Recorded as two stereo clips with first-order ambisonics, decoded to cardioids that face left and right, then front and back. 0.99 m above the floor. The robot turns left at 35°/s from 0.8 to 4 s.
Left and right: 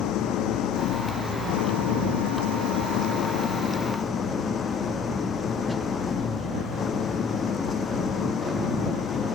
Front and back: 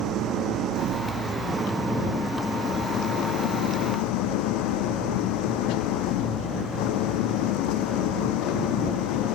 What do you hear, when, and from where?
0.0 s an engine running: 135° left; by 9.3 s 20° left